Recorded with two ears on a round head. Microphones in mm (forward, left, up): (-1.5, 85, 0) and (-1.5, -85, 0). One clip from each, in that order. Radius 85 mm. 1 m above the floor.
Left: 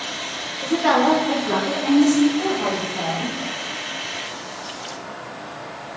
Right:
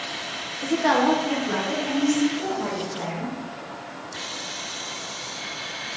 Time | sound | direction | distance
0.6 | a woman speaking | 20° right (ahead or behind) | 0.6 m